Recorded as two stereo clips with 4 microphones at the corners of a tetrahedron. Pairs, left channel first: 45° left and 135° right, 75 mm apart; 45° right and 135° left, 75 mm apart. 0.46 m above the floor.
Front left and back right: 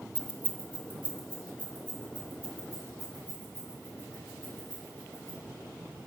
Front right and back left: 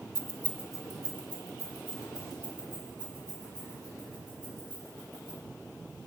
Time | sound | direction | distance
0.1 | keys jangling | 105° left | 0.7 m